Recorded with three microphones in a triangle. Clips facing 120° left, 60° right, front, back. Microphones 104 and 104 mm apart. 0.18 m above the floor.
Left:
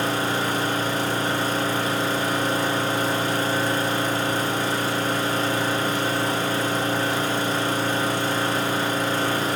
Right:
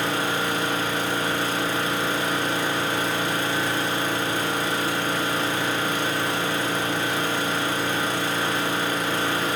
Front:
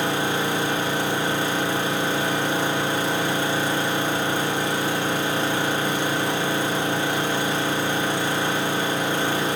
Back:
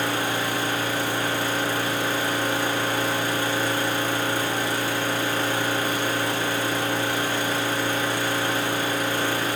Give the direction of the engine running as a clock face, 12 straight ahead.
10 o'clock.